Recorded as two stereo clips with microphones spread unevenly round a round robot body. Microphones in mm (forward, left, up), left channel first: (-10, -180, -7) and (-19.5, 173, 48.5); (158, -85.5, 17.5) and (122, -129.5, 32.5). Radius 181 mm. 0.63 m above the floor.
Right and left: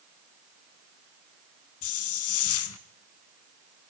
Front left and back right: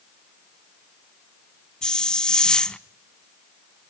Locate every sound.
1.8 s a hiss: 35° right, 0.9 m